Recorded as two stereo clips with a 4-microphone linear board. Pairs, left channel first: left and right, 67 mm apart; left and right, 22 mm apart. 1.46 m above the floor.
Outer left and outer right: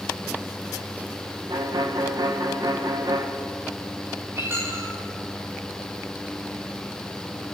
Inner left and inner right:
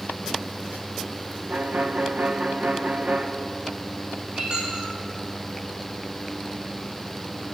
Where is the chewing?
I don't hear chewing.